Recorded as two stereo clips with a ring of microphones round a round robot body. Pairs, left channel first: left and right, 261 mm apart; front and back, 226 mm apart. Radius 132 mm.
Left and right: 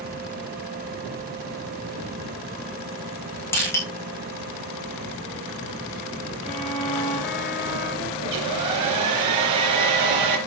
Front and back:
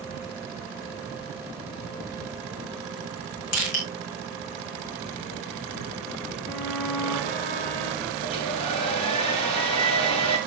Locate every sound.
3.5 s crushing: 10° left, 7.5 m
6.4 s a violin: 5° left, 7 m
8.2 s a hair dryer: 70° right, 4 m